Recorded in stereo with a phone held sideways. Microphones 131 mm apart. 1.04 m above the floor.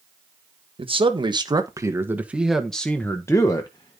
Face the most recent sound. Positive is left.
turn(degrees=40)  # may be behind; listen again after turning